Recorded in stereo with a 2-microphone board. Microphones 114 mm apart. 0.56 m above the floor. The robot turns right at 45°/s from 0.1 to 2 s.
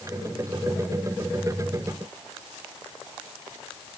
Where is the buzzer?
I don't hear a buzzer.